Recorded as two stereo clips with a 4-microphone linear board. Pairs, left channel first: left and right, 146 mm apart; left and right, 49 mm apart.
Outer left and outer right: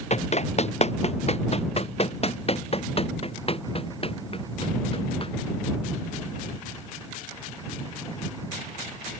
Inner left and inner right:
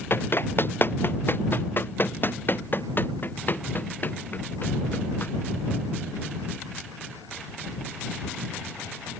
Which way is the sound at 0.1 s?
50° left (ahead or behind).